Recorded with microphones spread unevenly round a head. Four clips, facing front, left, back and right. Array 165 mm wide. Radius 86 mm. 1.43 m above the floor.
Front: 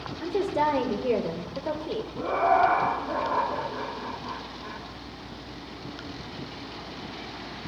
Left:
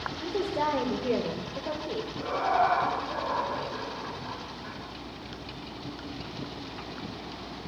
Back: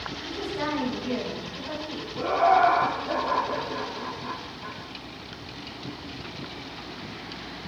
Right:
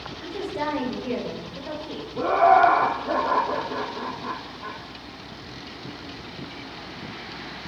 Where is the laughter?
95° right, 3.5 m.